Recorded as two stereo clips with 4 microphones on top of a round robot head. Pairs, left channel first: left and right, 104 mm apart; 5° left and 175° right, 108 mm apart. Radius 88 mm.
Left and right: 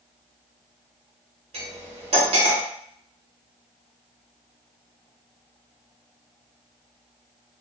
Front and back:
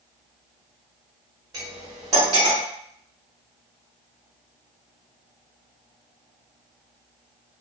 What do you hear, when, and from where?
1.5 s cutlery clinking: 115° right, 1.2 m